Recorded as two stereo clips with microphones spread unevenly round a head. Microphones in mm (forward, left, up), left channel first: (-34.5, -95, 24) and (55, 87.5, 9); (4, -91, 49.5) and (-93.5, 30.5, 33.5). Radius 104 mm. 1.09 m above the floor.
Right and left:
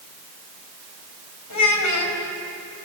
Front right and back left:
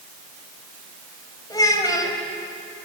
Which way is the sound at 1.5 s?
120° right.